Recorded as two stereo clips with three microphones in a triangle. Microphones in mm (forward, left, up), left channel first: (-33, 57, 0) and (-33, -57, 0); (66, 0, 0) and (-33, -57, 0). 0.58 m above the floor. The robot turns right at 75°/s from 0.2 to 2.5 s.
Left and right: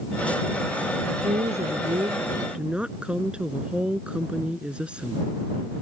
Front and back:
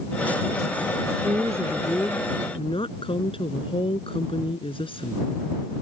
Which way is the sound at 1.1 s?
120° right.